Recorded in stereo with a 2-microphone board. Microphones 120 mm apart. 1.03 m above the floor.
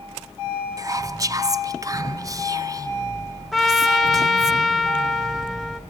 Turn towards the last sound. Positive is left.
turn(degrees=0)  # may be behind; listen again after turning